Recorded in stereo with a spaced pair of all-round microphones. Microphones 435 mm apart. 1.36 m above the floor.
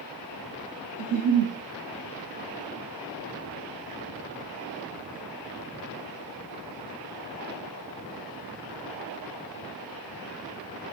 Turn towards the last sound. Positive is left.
turn(degrees=-30)  # may be behind; listen again after turning